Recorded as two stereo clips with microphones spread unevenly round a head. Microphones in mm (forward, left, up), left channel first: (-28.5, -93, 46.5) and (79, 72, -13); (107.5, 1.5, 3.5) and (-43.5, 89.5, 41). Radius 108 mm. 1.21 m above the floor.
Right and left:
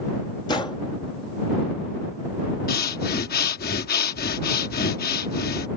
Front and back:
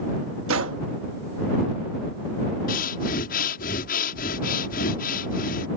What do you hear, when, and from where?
0.5 s a gunshot: 165° left
2.7 s breathing: 80° right